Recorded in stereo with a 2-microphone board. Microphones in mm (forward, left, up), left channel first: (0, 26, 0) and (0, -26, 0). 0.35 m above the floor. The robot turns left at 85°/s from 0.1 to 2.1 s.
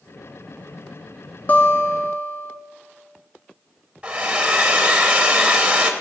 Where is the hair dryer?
25° right (ahead or behind), 0.7 m.